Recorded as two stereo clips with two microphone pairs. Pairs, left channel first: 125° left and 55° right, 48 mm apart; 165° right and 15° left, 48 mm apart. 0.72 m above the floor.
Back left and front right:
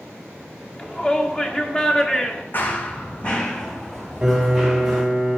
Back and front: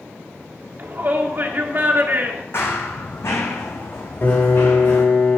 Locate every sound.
0.8 s a shout: 55° left, 1.7 m
2.5 s running footsteps: 165° left, 2.0 m; by 5.0 s 130° right, 3.5 m
4.2 s a piano: 130° right, 2.5 m